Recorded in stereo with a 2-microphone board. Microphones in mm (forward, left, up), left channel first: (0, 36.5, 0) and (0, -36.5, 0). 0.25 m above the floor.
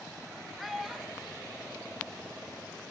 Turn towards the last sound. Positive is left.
turn(degrees=-15)  # may be behind; listen again after turning